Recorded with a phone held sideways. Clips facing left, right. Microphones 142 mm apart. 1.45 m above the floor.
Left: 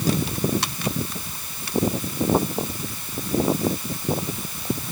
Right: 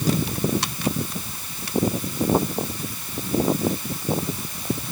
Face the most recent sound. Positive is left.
No sound to turn to.